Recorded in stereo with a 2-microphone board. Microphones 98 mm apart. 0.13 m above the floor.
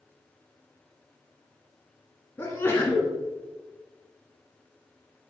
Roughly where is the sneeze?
Left.